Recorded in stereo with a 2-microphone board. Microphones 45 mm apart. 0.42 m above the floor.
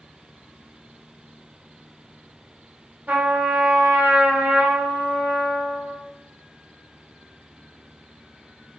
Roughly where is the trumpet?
Right.